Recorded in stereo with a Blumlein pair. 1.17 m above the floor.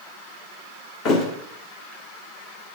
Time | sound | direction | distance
1.1 | a thud | 35° left | 1.4 m